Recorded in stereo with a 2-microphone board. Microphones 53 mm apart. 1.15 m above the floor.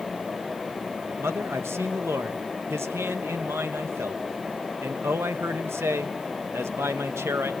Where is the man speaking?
55° right (ahead or behind), 1.0 m.